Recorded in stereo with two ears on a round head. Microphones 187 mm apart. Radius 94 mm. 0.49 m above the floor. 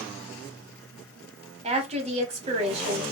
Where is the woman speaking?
30° right (ahead or behind), 2.0 m.